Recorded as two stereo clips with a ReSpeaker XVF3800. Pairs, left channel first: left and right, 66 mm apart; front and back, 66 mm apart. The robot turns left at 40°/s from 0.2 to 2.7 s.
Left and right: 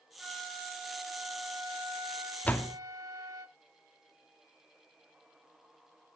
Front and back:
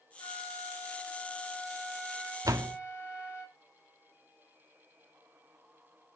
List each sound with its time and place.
0.2 s a flute: 10° right, 3 m; by 3.5 s 110° right, 3 m
2.5 s a door slam: 155° left, 0.8 m; by 2.8 s 145° left, 0.8 m